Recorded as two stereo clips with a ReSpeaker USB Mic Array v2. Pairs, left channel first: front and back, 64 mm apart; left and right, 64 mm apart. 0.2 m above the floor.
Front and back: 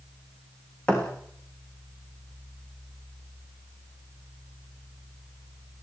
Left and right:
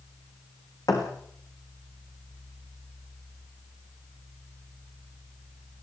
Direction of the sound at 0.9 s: 70° left.